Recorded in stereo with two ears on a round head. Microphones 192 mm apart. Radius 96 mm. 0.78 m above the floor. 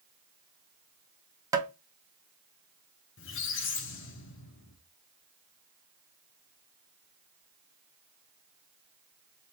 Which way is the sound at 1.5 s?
15° right (ahead or behind).